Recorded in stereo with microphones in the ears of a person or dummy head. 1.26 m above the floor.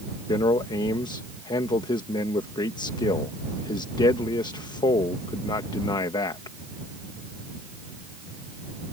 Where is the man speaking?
20° left (ahead or behind).